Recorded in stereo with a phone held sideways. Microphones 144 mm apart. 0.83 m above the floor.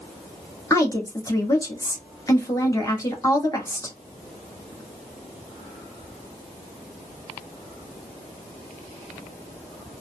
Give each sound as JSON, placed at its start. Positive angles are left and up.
{"t": 0.7, "sound": "a woman speaking", "side_deg": 25, "distance_m": 1.3}